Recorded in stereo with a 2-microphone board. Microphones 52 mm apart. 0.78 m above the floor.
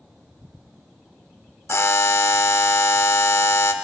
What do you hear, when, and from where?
1.7 s a buzzer: 60° left (ahead or behind), 0.6 m